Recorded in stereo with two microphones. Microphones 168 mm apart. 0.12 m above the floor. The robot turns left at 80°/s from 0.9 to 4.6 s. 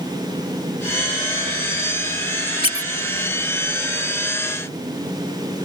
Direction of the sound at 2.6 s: 35° left (ahead or behind).